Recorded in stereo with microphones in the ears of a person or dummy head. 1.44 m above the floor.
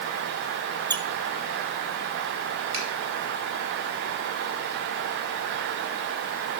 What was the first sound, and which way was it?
A squeak, 20° right (ahead or behind).